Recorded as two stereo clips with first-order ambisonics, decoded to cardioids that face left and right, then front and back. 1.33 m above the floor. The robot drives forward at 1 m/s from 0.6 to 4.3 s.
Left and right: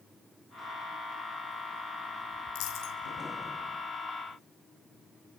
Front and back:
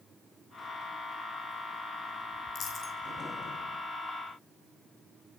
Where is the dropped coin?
65° left, 5 m; by 3.0 s 70° left, 5 m.